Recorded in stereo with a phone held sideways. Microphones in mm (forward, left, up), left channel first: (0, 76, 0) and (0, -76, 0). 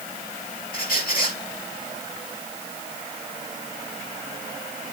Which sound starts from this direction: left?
A squeak, at 0.7 s.